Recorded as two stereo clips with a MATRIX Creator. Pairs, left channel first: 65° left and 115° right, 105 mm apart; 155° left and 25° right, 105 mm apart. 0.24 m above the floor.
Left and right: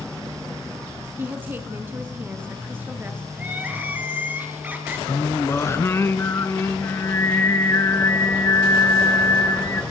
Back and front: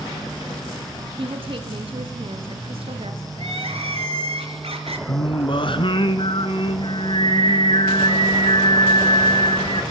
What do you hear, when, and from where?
1.2 s a woman speaking: 45° right, 2 m; by 3.3 s 40° right, 3.5 m
3.4 s crying: 40° right, 4 m
5.1 s singing: 130° left, 1.9 m